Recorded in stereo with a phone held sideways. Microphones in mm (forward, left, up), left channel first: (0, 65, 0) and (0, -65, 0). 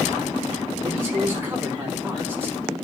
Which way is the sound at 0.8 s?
20° right (ahead or behind).